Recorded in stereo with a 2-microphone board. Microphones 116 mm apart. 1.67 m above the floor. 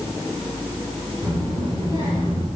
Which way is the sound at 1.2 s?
50° right (ahead or behind).